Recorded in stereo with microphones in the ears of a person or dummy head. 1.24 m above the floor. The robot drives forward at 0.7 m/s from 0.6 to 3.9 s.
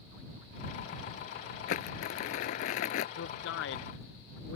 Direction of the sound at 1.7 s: 45° left (ahead or behind).